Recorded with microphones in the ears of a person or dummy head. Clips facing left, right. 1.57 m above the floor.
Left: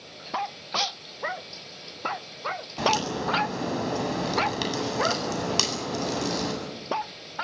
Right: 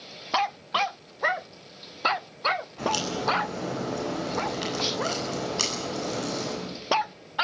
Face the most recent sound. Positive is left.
turn(degrees=80)